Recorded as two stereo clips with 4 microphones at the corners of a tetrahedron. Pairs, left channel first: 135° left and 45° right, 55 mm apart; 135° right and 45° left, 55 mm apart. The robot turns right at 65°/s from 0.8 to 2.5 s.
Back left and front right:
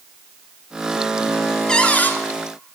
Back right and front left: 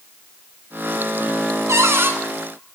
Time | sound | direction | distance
1.7 | a cupboard door | 60° left | 1.0 m